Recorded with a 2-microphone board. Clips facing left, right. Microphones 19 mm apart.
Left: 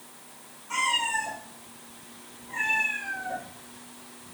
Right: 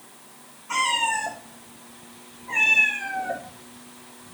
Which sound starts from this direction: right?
A cat meowing, at 0.7 s.